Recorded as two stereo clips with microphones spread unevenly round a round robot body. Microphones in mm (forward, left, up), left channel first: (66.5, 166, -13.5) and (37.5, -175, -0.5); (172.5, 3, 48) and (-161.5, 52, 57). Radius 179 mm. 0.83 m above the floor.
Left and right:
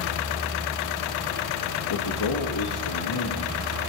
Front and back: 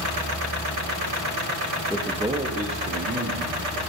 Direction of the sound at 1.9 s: 75° left.